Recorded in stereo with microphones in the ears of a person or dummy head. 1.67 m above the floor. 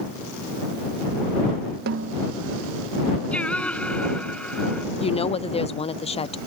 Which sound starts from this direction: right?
A snare drum, at 1.9 s.